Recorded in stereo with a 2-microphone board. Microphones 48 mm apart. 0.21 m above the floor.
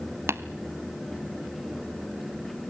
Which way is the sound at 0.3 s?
60° right (ahead or behind).